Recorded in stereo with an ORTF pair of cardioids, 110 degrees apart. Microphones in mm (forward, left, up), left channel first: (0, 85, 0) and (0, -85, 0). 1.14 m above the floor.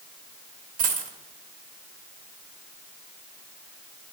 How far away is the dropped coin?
About 1.3 m.